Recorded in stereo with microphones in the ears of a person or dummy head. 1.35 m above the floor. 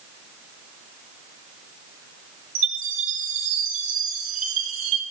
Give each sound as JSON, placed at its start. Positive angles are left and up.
{"t": 2.5, "sound": "a chime", "side_deg": -45, "distance_m": 3.0}